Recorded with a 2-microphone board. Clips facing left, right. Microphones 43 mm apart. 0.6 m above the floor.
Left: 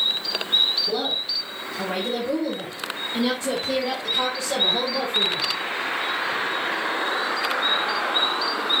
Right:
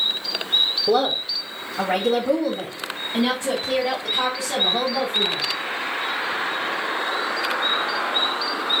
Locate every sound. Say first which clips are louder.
0.9 s a woman speaking: right 6 dB; 75° right (ahead or behind), 2.5 m; by 5.4 s 10° right (ahead or behind), 4.5 m